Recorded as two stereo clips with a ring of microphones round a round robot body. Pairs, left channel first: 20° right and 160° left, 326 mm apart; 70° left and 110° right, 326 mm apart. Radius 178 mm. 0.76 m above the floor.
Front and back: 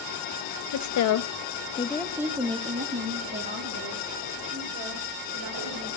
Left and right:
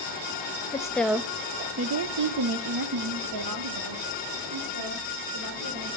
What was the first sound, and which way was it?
A woman speaking, 10° right.